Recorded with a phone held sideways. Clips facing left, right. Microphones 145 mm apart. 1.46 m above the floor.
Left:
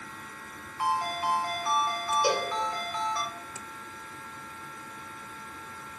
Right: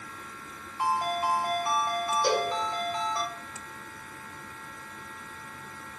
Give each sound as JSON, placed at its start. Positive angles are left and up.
{"t": 0.8, "sound": "a ringtone", "side_deg": -25, "distance_m": 1.7}
{"t": 2.2, "sound": "a cowbell", "side_deg": 10, "distance_m": 1.6}